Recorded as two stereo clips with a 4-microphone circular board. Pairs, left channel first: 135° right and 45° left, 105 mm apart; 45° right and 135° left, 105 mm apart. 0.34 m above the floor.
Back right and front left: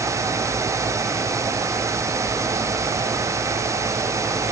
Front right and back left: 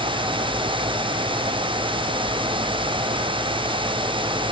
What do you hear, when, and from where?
Only background noise.